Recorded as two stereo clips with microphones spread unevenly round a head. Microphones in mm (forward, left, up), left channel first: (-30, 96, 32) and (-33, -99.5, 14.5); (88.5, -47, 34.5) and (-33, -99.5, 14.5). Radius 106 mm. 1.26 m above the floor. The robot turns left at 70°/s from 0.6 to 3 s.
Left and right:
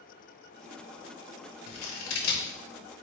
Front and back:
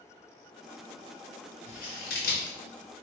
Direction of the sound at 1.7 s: 85° left.